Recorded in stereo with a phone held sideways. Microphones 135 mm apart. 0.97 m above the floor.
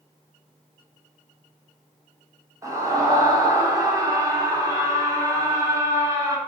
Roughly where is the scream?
Right.